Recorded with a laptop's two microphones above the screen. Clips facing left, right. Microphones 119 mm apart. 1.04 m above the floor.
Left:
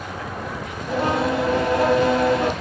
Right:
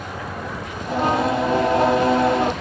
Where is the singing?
30° right (ahead or behind), 1.1 m.